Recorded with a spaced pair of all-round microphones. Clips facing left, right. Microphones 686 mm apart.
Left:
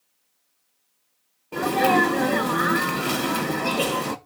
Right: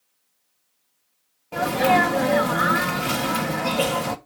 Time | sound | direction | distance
1.5 | a sneeze | 20° right (ahead or behind) | 1.1 m